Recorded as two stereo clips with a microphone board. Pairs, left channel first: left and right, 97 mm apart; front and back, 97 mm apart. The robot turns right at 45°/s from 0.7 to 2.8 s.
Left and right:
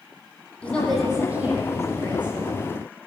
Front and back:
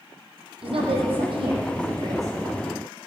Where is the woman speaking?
165° left, 5 m; by 2.3 s 120° right, 5 m.